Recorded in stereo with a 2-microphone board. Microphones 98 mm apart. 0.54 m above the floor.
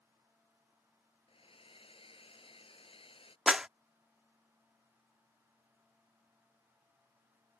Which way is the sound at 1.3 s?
70° left (ahead or behind).